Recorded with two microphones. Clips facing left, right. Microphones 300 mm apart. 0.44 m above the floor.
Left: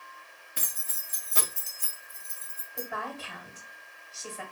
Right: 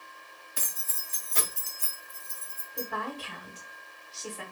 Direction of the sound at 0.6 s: 25° left (ahead or behind).